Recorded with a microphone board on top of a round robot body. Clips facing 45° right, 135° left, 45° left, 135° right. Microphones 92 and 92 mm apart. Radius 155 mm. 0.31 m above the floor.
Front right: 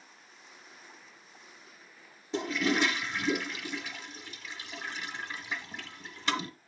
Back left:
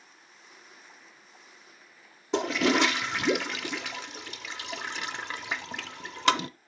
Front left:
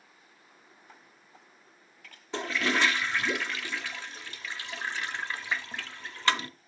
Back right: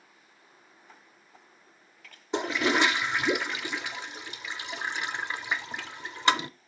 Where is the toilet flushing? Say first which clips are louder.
Back left 4 dB, back right 3 dB; 155° left, 0.6 m.